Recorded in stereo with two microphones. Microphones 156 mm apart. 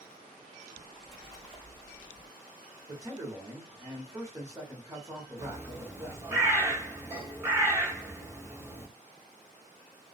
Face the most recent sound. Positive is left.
turn(degrees=-15)  # may be behind; listen again after turning